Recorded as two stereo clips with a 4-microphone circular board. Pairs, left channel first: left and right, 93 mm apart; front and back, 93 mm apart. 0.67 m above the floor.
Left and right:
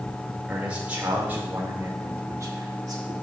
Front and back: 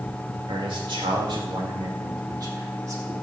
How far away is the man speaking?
About 2.5 m.